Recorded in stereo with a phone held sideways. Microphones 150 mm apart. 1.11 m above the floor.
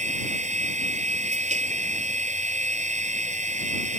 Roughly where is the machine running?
Right.